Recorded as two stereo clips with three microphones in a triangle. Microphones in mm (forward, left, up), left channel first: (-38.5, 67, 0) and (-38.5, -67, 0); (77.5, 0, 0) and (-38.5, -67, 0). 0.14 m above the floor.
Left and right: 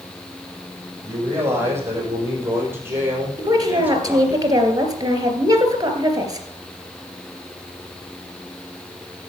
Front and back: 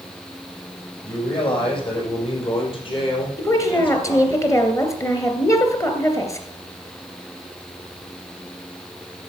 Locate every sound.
1.0 s a man speaking: 20° right, 7 m; by 4.4 s 10° right, 3.5 m
3.4 s a woman speaking: 35° right, 2.5 m